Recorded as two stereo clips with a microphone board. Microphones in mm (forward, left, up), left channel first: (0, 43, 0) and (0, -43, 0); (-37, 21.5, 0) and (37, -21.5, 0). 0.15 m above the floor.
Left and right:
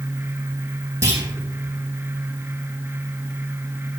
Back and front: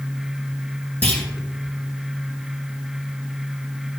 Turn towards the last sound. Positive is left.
turn(degrees=-140)